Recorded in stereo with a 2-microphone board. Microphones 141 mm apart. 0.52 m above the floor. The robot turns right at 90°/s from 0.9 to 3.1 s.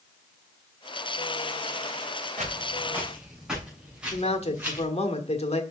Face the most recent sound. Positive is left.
turn(degrees=50)  # may be behind; listen again after turning